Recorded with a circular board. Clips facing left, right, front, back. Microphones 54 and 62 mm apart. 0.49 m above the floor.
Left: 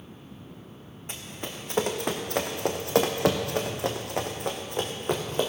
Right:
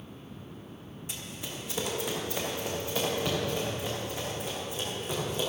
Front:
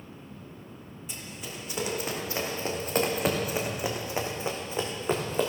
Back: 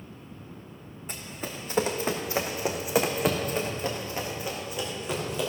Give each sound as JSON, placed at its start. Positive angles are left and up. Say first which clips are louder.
{"t": 1.1, "sound": "running footsteps", "louder": "left 4 dB, back 4 dB", "azimuth_deg": 135, "distance_m": 1.9}